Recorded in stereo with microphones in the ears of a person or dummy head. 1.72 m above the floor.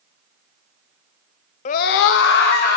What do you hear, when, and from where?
1.6 s a scream: 45° left (ahead or behind), 0.7 m; by 2.8 s 55° left (ahead or behind), 1.6 m